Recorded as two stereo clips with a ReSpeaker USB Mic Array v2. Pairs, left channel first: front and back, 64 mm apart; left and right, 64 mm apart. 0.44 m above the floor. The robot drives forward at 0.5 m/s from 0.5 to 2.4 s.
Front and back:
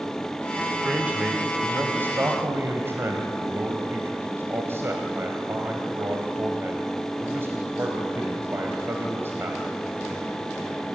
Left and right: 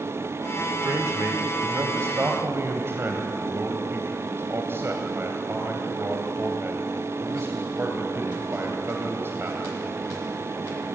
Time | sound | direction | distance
0.8 | a man speaking | 115° right | 1.7 m